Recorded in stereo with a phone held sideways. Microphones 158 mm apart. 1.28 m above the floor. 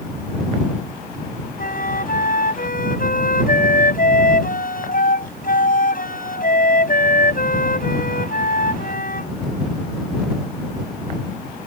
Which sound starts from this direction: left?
A flute, at 1.6 s.